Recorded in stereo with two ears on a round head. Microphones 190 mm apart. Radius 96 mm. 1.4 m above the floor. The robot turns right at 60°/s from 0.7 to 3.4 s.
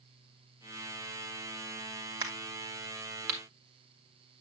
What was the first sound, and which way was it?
A crack, 20° right (ahead or behind).